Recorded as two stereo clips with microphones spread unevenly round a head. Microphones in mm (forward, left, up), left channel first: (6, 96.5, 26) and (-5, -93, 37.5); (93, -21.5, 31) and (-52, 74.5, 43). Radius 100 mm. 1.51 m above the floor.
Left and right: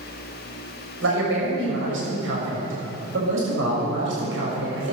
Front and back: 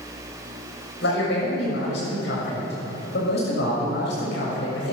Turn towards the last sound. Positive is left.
turn(degrees=-70)